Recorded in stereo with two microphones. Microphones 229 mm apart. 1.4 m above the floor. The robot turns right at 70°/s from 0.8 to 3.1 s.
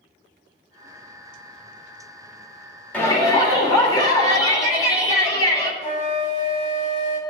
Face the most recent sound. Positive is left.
turn(degrees=30)  # may be behind; listen again after turning